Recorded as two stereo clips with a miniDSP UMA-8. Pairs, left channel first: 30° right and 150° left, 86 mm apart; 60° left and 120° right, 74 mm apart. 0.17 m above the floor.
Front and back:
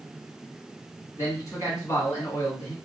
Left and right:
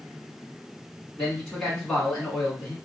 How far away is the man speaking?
About 1.3 m.